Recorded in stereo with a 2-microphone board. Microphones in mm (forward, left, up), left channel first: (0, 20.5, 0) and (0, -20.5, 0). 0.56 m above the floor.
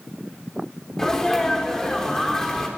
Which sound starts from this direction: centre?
A sneeze, at 1.0 s.